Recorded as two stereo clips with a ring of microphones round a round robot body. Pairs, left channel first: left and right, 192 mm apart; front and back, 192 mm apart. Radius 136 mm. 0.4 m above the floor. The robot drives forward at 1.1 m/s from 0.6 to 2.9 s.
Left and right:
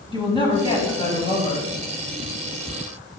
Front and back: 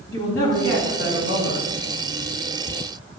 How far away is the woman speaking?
About 3 m.